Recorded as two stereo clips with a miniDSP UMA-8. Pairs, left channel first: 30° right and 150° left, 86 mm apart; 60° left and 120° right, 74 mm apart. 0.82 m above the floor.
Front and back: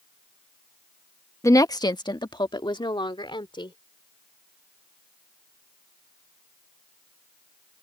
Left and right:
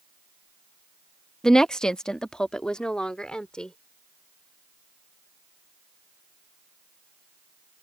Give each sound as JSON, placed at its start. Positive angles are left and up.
{"t": 1.4, "sound": "a woman speaking", "azimuth_deg": -20}